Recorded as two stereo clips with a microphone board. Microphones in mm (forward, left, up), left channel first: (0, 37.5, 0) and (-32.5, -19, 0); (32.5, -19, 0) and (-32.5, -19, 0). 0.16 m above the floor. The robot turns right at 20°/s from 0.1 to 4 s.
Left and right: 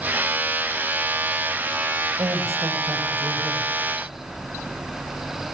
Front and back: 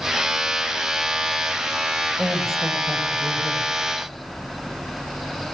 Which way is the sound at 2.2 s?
90° right.